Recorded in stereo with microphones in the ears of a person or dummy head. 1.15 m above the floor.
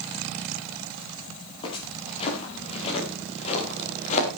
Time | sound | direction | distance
1.6 | footsteps | 25° left (ahead or behind) | 8.5 m